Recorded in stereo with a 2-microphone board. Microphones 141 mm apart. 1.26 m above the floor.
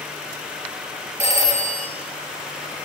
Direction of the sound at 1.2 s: 55° right (ahead or behind).